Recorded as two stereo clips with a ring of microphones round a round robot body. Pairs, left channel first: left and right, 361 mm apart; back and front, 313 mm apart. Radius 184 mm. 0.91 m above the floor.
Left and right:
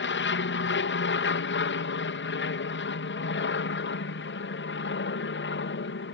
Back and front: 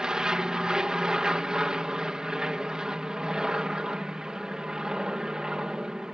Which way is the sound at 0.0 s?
85° left.